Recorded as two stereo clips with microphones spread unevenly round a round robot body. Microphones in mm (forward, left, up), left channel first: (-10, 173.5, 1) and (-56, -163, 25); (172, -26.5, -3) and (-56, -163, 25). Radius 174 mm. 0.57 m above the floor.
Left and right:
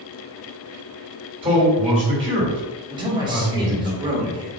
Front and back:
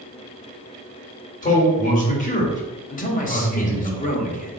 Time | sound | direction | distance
1.4 | a man speaking | 20° right | 1.7 m
2.9 | a man speaking | 20° right | 1.2 m